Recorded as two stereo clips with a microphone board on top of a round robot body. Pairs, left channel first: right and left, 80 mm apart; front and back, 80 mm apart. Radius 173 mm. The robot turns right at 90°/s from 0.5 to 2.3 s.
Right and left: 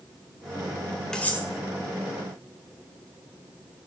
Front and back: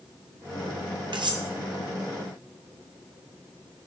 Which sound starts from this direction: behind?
Cutlery clinking, at 1.1 s.